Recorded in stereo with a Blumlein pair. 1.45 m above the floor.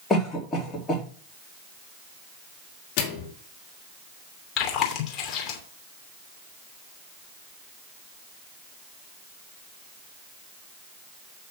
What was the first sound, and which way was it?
A cough, 10° left.